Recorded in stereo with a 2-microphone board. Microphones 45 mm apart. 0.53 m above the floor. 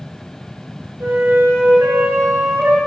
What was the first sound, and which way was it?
A flute, 70° right (ahead or behind).